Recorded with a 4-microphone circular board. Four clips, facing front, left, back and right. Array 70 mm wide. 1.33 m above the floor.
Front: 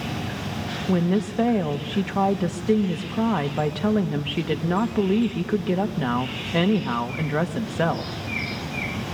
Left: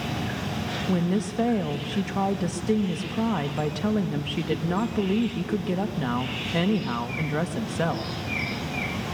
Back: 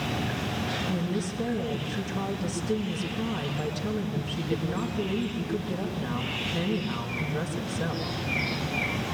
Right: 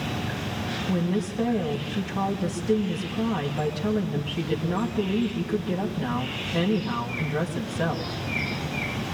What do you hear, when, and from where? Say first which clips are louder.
0.9 s a woman speaking: left 1 dB, front 7 dB; 15° left, 1.8 m